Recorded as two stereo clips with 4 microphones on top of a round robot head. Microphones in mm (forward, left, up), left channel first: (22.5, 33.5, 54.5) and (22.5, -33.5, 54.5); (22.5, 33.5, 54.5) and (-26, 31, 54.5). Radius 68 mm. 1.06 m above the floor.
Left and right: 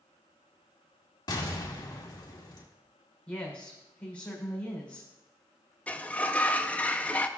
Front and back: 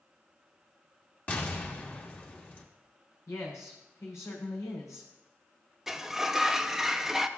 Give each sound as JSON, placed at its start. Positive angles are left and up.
{"t": 1.3, "sound": "an explosion", "azimuth_deg": 60, "distance_m": 1.9}
{"t": 3.3, "sound": "a woman speaking", "azimuth_deg": 15, "distance_m": 4.0}
{"t": 5.9, "sound": "a sliding door", "azimuth_deg": 115, "distance_m": 0.7}